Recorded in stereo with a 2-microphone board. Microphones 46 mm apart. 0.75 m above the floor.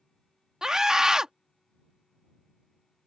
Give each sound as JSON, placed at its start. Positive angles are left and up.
{"t": 0.6, "sound": "a scream", "side_deg": -15}